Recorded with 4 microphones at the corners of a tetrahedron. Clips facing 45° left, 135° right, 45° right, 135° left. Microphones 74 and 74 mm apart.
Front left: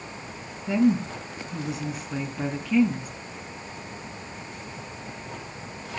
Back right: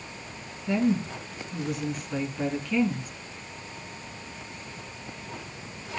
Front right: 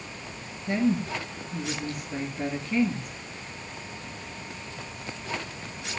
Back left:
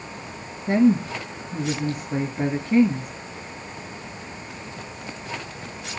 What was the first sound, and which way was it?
A woman speaking, 120° left.